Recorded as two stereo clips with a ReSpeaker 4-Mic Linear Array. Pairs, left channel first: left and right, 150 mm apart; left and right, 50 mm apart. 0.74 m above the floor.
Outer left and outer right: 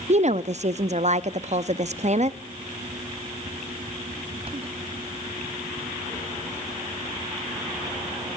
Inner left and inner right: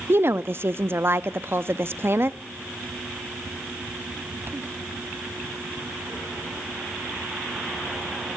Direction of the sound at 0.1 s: 50° right (ahead or behind).